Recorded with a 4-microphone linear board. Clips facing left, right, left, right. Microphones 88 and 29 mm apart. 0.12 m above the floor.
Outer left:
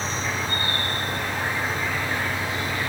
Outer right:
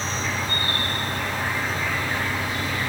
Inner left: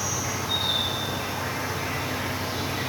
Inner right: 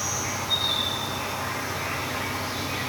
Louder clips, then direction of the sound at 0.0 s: Even, even; 10° left (ahead or behind).